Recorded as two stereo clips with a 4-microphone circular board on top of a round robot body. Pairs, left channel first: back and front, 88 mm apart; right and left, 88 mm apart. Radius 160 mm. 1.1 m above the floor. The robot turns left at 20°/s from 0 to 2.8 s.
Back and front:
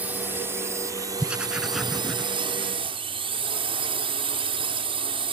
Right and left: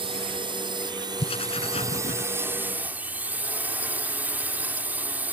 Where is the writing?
75° right; by 2.3 s 100° right.